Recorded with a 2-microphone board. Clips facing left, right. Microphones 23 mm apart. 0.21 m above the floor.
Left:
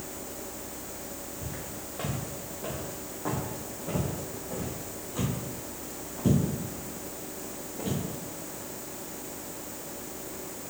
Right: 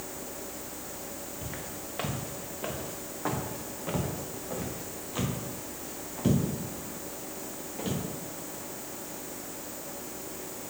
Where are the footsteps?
65° right (ahead or behind), 1.9 m; by 8.0 s 35° right (ahead or behind), 3.5 m.